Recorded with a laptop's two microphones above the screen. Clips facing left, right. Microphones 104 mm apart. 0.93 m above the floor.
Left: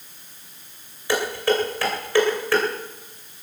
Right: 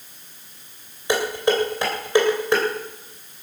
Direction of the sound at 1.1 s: 20° right (ahead or behind).